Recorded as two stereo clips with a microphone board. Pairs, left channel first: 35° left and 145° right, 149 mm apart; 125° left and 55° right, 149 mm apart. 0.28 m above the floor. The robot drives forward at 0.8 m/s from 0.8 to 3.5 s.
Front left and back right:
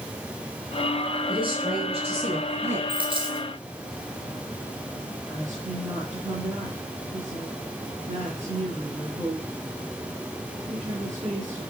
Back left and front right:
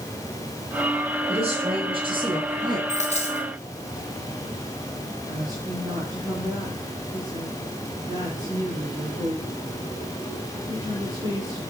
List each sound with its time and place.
1.3 s a woman speaking: 95° right, 3.5 m; by 2.8 s 115° right, 4 m
2.9 s a dropped coin: 160° left, 2.5 m; by 3.5 s 165° left, 3 m
5.3 s a woman speaking: 115° right, 4.5 m